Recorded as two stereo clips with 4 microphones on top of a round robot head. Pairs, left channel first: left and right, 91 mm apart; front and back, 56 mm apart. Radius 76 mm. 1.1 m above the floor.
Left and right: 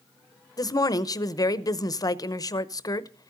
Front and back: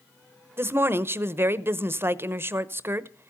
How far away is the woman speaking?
About 0.9 m.